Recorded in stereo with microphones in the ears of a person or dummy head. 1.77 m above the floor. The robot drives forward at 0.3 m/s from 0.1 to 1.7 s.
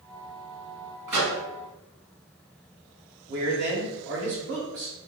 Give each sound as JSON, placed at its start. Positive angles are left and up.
{"t": 1.1, "sound": "a microwave", "side_deg": -15, "distance_m": 1.6}
{"t": 3.3, "sound": "a man speaking", "side_deg": -60, "distance_m": 1.2}